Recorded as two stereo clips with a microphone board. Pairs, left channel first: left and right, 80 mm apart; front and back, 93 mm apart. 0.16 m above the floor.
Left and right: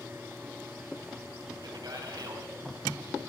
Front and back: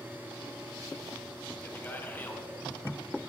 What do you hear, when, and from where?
1.6 s a man speaking: 70° right, 3.5 m